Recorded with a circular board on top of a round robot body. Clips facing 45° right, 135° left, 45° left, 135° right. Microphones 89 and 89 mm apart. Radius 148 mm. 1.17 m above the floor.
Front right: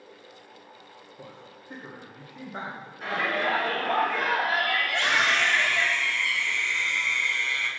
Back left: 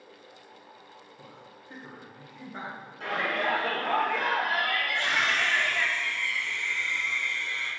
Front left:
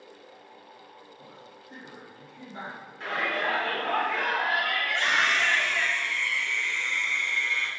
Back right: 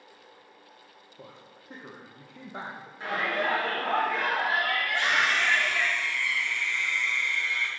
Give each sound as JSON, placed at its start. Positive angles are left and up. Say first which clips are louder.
{"t": 1.2, "sound": "a man speaking", "louder": "front right 6 dB, front left 1 dB", "azimuth_deg": -110, "distance_m": 1.4}
{"t": 3.0, "sound": "a shout", "louder": "front right 2 dB, back right 1 dB", "azimuth_deg": 150, "distance_m": 3.5}
{"t": 4.8, "sound": "a scream", "louder": "front right 3 dB, even", "azimuth_deg": -55, "distance_m": 1.8}